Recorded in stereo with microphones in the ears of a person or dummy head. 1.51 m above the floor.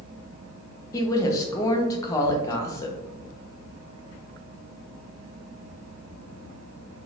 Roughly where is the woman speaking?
Left.